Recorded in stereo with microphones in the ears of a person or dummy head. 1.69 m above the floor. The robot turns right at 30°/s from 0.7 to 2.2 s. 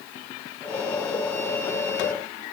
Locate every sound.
Only background noise.